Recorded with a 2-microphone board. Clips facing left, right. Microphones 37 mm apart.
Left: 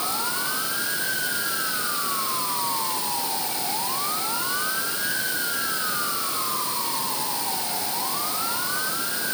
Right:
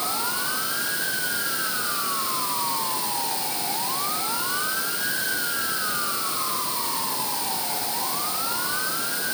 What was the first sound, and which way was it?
Only background noise.